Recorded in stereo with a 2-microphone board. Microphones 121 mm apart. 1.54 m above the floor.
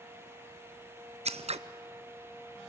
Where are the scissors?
65° right (ahead or behind), 0.5 m.